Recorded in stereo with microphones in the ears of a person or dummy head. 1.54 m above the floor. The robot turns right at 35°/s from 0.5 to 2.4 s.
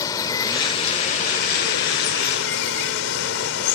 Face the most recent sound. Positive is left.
turn(degrees=90)